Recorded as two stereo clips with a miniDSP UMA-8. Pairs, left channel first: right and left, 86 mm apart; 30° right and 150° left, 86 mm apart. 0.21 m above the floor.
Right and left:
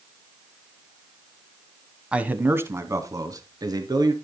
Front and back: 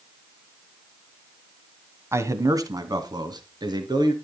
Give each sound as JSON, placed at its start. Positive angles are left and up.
{"t": 2.1, "sound": "a man speaking", "azimuth_deg": 155, "distance_m": 1.1}